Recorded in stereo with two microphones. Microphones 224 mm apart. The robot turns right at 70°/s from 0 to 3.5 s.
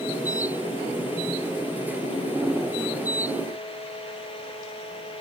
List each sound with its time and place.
Only background noise.